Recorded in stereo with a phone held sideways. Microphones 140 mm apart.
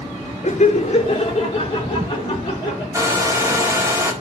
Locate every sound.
0.4 s laughter: 55° left (ahead or behind), 1.1 m; by 2.8 s 30° left (ahead or behind), 4 m
2.9 s a hair dryer: 20° right (ahead or behind), 1.7 m